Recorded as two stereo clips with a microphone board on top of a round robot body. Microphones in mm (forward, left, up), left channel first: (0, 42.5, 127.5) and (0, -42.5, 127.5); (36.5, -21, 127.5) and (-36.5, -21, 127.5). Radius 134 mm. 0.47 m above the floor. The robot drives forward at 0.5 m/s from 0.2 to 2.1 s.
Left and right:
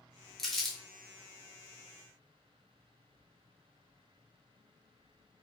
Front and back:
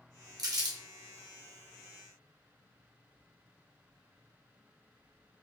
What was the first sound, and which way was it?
Crumpling, 175° left.